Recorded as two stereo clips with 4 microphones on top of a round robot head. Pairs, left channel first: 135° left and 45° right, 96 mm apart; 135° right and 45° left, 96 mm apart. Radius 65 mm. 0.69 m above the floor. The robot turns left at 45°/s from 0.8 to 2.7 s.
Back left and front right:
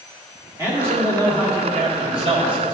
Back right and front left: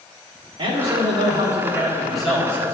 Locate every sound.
0.6 s a man speaking: 15° left, 1.7 m; by 2.7 s 70° right, 1.7 m